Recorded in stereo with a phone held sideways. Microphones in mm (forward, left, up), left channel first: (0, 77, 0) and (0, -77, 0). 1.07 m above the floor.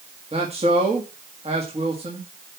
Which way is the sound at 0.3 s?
40° right (ahead or behind).